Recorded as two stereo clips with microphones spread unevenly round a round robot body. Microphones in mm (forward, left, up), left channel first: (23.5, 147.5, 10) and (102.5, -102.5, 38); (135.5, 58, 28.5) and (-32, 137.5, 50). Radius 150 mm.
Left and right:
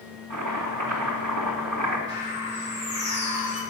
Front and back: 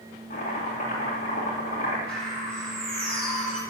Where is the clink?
I don't hear a clink.